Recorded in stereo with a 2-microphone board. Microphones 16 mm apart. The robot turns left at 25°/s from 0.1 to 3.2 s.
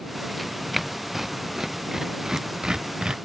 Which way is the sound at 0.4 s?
Centre (ahead or behind).